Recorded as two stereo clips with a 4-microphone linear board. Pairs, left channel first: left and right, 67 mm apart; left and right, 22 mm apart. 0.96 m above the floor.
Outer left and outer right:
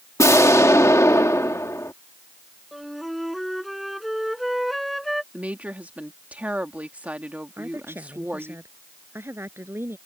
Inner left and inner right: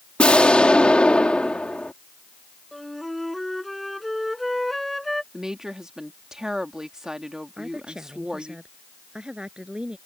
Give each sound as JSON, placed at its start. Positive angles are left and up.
{"t": 0.2, "sound": "an explosion", "side_deg": 50}
{"t": 2.7, "sound": "a flute", "side_deg": 0}
{"t": 5.3, "sound": "a woman speaking", "side_deg": -20}
{"t": 7.6, "sound": "a woman speaking", "side_deg": -35}